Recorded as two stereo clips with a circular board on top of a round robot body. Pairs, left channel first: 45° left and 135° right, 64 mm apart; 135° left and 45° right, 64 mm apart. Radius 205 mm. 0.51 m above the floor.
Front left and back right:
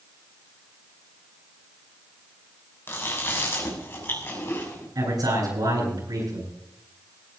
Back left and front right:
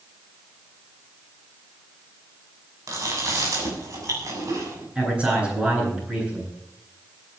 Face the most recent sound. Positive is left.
turn(degrees=-115)